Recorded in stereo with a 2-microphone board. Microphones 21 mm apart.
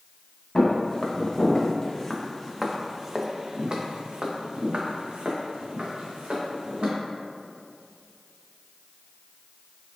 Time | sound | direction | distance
0.6 | footsteps | 40° left (ahead or behind) | 1.5 m